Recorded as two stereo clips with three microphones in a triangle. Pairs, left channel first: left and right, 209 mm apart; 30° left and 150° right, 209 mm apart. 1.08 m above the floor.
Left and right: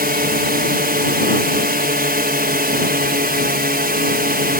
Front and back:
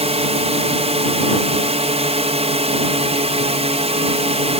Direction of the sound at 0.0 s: 100° right.